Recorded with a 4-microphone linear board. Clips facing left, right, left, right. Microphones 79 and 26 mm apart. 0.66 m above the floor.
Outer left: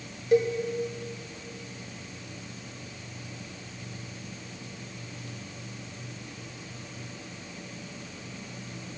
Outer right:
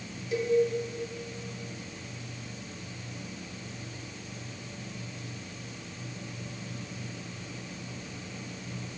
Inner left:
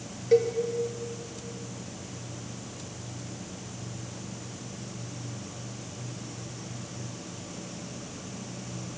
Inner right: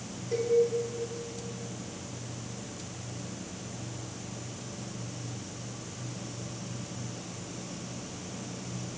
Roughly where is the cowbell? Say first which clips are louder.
Outer left 6 dB, inner left 7 dB; left.